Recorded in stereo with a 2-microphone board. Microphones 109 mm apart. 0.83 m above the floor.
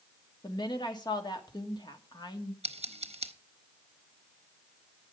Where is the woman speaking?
40° left (ahead or behind), 1.7 m.